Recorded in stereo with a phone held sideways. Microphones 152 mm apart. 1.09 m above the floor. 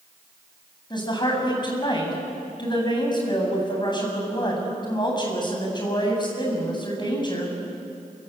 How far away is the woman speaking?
About 7 m.